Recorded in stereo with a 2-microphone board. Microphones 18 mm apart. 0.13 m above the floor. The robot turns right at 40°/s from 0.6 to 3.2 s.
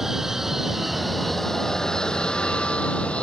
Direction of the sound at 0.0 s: 25° right.